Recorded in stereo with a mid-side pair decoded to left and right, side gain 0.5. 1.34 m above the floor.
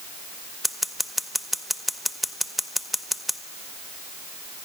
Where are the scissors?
Straight ahead, 1.0 m.